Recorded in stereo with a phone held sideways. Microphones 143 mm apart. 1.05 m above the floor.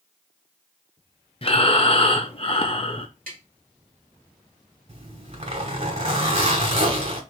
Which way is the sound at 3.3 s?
80° right.